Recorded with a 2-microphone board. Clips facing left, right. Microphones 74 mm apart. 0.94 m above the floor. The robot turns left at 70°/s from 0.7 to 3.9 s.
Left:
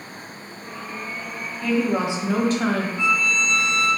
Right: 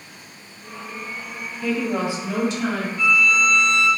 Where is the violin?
30° left, 1.1 m; by 3.9 s 35° right, 1.1 m.